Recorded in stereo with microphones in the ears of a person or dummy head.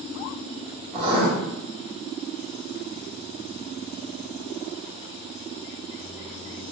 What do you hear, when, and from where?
0.9 s writing: 30° right (ahead or behind), 1.1 m